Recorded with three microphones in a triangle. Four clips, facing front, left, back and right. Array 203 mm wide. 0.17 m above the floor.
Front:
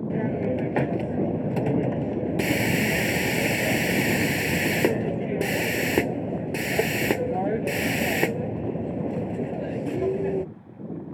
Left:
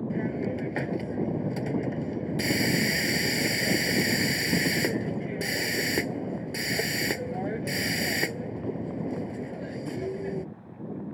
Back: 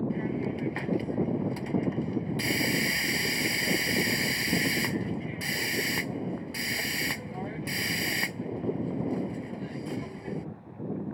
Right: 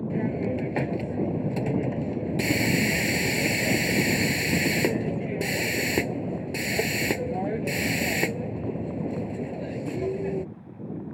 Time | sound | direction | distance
0.1 | a hiss | 10° right | ?